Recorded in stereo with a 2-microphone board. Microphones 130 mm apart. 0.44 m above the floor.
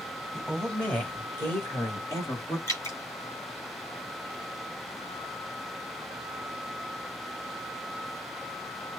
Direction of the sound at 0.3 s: 5° left (ahead or behind).